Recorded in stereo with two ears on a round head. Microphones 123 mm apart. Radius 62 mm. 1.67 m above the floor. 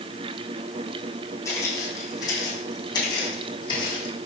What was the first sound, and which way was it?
Footsteps, 25° left (ahead or behind).